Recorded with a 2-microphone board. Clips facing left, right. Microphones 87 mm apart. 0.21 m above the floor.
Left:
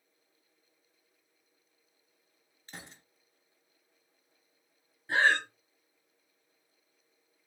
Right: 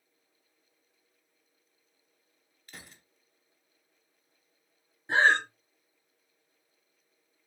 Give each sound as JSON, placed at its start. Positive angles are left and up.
{"t": 2.7, "sound": "a gunshot", "side_deg": 30, "distance_m": 0.9}
{"t": 5.1, "sound": "breathing", "side_deg": -25, "distance_m": 0.6}